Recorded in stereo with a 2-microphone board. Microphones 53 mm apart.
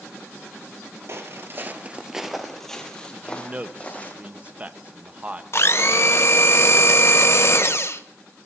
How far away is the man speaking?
About 1.0 m.